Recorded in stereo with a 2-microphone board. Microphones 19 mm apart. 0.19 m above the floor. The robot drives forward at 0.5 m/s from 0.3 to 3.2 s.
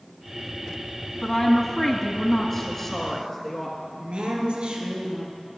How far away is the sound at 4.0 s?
About 3 m.